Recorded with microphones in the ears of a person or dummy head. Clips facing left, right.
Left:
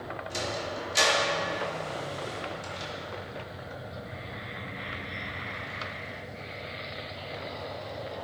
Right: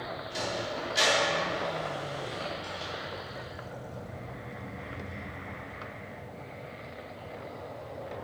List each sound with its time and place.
0.3 s a sliding door: 65° left (ahead or behind), 2.5 m